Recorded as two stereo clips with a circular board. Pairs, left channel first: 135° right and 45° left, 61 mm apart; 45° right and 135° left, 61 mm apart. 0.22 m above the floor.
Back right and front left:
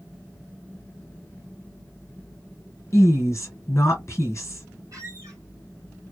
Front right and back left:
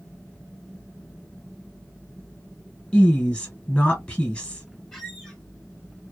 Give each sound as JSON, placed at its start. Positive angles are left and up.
{"t": 2.9, "sound": "a woman speaking", "azimuth_deg": -120, "distance_m": 1.4}
{"t": 4.9, "sound": "a squeak", "azimuth_deg": 30, "distance_m": 2.0}